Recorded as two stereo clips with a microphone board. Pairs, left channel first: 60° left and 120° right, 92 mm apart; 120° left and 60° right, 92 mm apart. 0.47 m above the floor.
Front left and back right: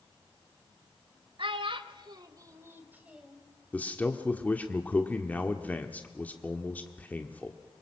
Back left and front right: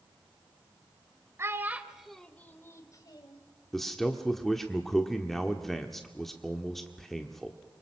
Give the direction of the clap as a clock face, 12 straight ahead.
I don't hear a clap.